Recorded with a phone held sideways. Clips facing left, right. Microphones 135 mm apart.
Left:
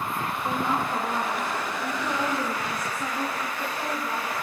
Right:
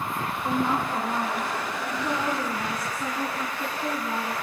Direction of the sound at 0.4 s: 10° left (ahead or behind).